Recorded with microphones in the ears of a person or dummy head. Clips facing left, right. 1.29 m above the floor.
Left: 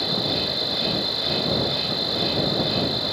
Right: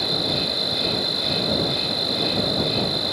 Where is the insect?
10° left (ahead or behind).